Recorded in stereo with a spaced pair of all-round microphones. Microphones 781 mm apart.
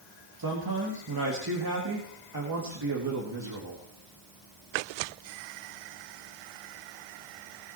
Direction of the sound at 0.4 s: 25° right (ahead or behind).